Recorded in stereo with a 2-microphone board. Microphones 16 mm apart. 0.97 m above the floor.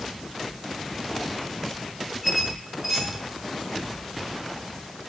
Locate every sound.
2.2 s a squeak: 5° right (ahead or behind), 2.5 m